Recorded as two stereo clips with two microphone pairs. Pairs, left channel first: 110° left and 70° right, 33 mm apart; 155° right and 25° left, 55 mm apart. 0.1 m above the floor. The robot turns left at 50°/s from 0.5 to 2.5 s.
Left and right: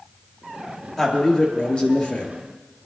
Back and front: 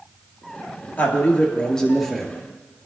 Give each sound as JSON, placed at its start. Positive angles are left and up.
{"t": 1.0, "sound": "a man speaking", "azimuth_deg": 175, "distance_m": 2.0}